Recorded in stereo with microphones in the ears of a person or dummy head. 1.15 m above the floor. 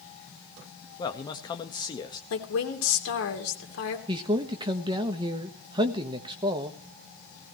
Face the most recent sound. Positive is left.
turn(degrees=-25)  # may be behind; listen again after turning